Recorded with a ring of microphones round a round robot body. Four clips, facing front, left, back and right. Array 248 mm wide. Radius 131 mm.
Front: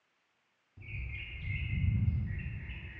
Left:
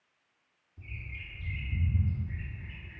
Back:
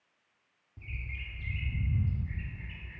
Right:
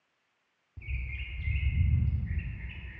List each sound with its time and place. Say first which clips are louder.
0.8 s a bird: right 2 dB, back 2 dB; 110° right, 0.6 m